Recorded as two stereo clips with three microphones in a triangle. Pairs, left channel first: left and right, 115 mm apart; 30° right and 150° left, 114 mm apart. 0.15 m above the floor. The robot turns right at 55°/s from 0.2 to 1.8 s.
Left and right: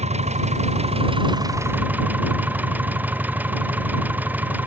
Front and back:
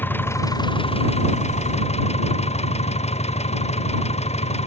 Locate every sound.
0.0 s an engine running: 105° right; by 4.7 s 15° right